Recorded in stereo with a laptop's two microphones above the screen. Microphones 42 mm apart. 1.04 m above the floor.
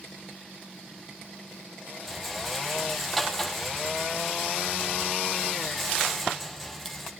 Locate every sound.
2.1 s a rattle: centre (ahead or behind), 5 m